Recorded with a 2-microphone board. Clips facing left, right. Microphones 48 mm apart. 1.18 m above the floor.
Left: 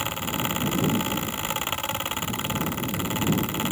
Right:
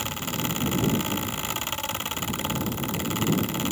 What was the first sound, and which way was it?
Only background noise.